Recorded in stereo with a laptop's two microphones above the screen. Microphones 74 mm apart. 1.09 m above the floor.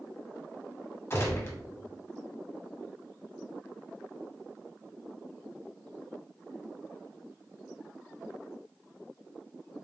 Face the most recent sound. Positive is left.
turn(degrees=35)  # may be behind; listen again after turning